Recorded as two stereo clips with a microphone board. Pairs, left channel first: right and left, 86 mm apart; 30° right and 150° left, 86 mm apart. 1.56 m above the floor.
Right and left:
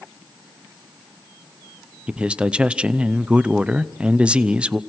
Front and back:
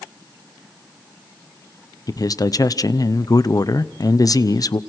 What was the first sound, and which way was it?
A man speaking, 15° left.